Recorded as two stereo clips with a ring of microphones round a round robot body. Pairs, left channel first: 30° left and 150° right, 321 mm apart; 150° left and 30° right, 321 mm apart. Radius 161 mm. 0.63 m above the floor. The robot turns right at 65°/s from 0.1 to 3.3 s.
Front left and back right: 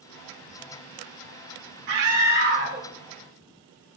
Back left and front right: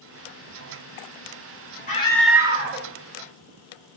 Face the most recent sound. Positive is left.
turn(degrees=-50)